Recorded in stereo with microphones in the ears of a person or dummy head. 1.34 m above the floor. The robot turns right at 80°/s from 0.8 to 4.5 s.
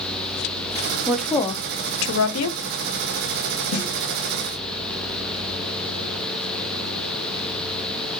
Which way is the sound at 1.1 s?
10° right (ahead or behind).